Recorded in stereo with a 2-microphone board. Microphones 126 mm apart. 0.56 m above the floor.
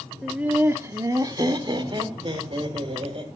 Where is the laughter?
5° right (ahead or behind), 1.0 m; by 3.2 s 45° right (ahead or behind), 3 m.